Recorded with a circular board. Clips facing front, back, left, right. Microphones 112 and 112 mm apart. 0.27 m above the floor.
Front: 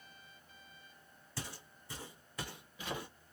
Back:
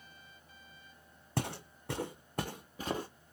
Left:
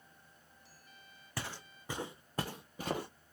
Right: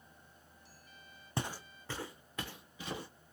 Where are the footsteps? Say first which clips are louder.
Back 10 dB, right 4 dB; 155° right, 0.6 m; by 3.1 s 125° left, 1.3 m.